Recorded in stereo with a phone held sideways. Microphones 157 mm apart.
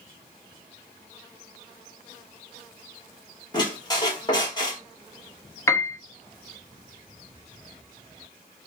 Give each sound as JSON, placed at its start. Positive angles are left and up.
{"t": 3.5, "sound": "a squeak", "side_deg": 30, "distance_m": 1.0}
{"t": 5.7, "sound": "a piano", "side_deg": 20, "distance_m": 0.6}